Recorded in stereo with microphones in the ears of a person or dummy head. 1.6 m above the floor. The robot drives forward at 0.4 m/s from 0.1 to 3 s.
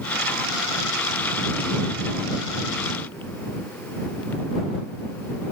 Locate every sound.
Only background noise.